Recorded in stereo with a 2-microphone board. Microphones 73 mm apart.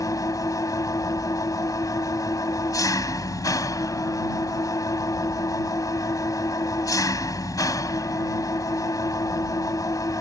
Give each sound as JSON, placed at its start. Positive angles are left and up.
{"t": 0.0, "sound": "an engine running", "side_deg": 45}